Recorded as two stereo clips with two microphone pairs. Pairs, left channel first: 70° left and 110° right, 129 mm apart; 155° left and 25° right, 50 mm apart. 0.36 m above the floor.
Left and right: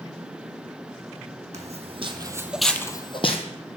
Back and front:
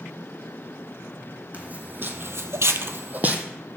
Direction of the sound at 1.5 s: 85° right.